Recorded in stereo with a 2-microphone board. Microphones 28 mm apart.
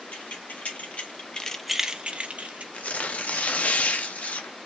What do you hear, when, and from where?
0.1 s keys jangling: 70° left (ahead or behind), 1.5 m; by 2.6 s 65° right (ahead or behind), 1.0 m
2.7 s tearing paper: 65° left (ahead or behind), 0.7 m